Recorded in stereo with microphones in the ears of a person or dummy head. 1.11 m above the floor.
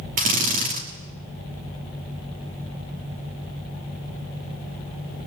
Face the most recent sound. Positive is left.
turn(degrees=-40)  # may be behind; listen again after turning